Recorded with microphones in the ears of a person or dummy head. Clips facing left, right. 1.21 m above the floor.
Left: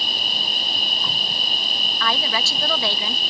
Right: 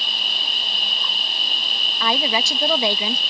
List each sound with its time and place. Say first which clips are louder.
0.0 s an insect: left 3 dB; 40° left (ahead or behind)
2.0 s a woman speaking: right 3 dB; 20° right (ahead or behind)